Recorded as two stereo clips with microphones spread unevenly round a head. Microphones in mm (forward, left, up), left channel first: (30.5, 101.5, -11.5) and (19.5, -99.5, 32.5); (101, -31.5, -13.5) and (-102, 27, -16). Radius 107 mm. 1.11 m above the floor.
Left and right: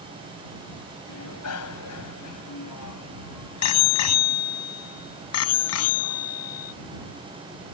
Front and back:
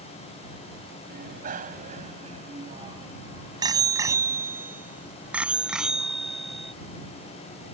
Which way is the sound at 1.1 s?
115° left.